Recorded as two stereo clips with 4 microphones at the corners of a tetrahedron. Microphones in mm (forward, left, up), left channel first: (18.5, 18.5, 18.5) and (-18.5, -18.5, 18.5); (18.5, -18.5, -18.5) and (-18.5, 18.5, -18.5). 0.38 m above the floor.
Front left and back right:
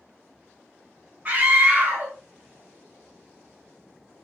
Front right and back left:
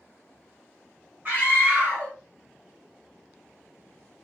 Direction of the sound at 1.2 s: 175° right.